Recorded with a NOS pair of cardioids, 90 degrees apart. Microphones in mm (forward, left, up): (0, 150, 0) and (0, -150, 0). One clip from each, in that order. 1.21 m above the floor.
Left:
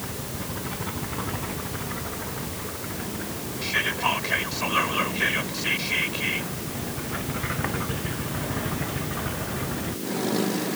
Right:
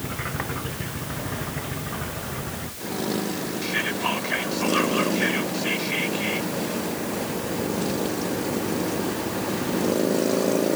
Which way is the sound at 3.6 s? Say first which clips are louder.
Left 2 dB; 10° left.